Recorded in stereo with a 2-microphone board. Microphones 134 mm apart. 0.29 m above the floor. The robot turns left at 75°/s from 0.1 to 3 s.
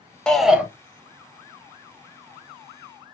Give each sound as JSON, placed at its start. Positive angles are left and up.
{"t": 0.3, "sound": "a shout", "side_deg": 5, "distance_m": 1.0}